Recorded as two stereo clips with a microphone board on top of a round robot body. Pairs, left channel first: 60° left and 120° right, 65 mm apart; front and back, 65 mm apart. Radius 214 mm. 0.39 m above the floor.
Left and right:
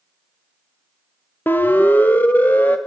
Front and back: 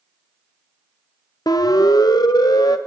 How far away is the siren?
About 2 m.